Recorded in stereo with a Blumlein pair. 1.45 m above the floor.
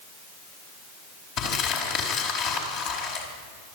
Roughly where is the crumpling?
Ahead left.